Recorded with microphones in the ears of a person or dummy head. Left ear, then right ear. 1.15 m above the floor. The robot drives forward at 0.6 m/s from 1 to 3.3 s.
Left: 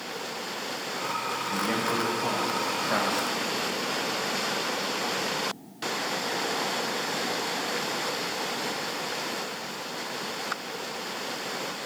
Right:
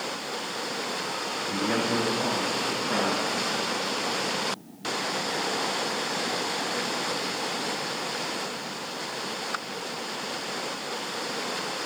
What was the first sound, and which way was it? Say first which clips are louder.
A man speaking: right 2 dB; 15° left (ahead or behind).